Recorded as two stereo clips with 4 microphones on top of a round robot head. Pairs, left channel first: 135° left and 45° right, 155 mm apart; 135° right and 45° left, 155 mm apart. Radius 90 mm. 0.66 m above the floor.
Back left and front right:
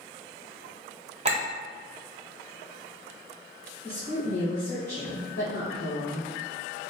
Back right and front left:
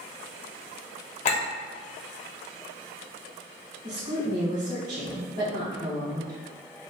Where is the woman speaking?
60° left, 1.9 m.